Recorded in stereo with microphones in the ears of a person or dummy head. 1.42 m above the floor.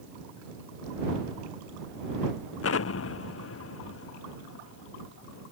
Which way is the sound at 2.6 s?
65° left (ahead or behind).